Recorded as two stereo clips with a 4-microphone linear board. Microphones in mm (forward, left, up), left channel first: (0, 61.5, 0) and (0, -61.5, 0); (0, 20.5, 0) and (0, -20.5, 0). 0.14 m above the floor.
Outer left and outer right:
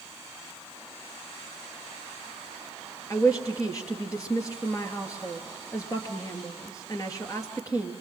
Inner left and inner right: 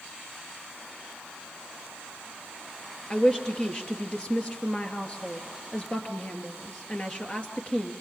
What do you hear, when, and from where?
3.1 s a woman speaking: 30° left (ahead or behind), 3 m